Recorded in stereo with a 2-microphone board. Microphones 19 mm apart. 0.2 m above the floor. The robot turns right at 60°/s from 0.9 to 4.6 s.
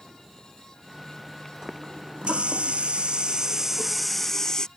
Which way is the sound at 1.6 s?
145° right.